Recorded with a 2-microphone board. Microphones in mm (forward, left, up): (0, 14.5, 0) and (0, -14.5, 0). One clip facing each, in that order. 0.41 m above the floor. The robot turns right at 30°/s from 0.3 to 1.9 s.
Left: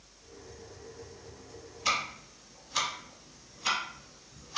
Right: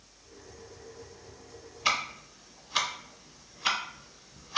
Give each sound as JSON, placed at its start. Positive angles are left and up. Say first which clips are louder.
{"t": 1.9, "sound": "ticking", "louder": "right 2 dB", "side_deg": -25, "distance_m": 0.6}